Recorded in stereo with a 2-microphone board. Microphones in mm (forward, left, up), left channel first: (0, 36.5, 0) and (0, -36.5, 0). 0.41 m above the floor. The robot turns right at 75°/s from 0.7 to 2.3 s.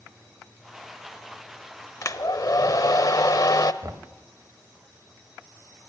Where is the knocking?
50° right (ahead or behind), 1.7 m.